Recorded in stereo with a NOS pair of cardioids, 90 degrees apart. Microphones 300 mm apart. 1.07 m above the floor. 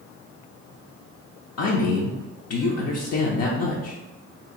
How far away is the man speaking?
About 0.6 m.